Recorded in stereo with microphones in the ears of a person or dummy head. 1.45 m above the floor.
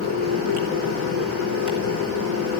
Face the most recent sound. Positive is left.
turn(degrees=-80)